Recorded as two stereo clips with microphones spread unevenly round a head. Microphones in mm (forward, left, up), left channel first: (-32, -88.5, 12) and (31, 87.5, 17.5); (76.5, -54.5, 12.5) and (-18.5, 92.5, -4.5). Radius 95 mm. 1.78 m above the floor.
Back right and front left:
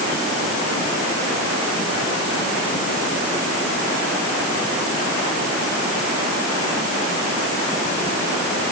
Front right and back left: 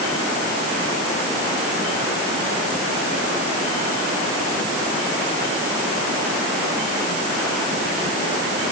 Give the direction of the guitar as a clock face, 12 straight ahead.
No guitar in this recording.